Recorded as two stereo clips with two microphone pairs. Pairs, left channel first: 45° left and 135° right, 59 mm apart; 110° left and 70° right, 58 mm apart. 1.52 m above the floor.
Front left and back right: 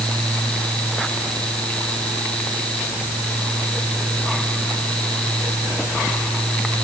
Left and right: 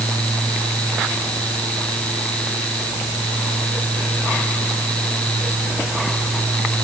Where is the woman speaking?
I don't hear a woman speaking.